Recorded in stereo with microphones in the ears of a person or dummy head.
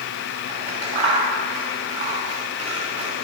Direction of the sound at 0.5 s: 30° right (ahead or behind).